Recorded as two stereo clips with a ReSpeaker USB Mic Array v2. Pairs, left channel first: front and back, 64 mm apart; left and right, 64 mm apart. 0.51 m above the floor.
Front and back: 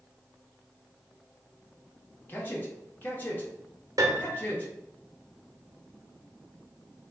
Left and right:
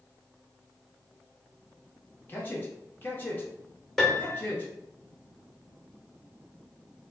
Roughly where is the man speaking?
Ahead left.